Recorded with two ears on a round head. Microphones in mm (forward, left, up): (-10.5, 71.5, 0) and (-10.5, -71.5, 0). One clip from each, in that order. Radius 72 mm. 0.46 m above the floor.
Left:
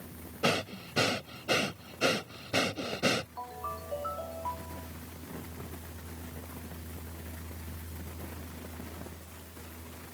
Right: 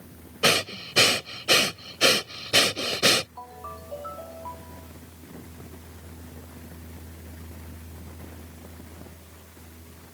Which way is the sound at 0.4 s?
65° right (ahead or behind).